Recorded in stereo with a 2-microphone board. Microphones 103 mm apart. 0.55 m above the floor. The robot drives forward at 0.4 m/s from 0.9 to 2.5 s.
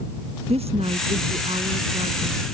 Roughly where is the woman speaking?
Right.